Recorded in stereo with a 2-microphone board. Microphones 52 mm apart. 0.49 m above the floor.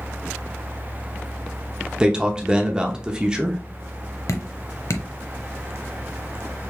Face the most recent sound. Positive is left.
turn(degrees=65)  # may be behind; listen again after turning